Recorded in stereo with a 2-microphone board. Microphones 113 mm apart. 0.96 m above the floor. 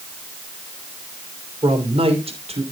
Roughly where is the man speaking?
Right.